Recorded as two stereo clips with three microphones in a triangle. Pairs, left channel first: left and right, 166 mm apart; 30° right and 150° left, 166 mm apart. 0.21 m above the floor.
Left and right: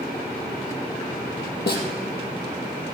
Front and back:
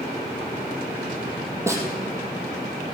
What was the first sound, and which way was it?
A snare drum, 75° left.